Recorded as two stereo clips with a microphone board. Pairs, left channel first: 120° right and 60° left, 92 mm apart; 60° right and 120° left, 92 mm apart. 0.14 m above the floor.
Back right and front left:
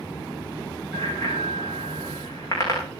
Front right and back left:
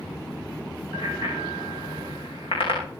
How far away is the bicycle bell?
About 7.5 m.